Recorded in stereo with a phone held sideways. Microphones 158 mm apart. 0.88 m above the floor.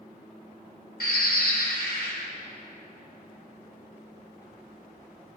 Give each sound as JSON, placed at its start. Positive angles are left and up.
{"t": 1.0, "sound": "a bird", "side_deg": 75, "distance_m": 4.0}